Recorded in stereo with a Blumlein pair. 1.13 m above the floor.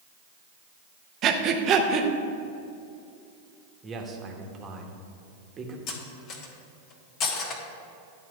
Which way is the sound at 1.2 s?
30° right.